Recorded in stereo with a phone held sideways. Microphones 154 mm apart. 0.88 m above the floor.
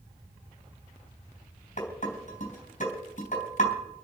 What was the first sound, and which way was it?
Dishes clattering, 55° left (ahead or behind).